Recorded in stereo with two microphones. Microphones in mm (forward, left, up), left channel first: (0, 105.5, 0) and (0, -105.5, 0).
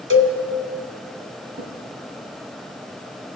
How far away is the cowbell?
About 2 m.